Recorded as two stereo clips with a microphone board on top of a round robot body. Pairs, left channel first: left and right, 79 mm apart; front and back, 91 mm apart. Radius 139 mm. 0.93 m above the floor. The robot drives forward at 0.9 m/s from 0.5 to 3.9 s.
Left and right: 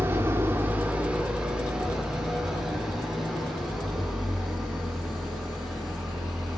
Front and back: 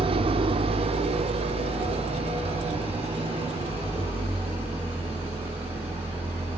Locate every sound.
0.0 s an engine running: 155° right, 0.8 m; by 6.6 s 175° right, 3.5 m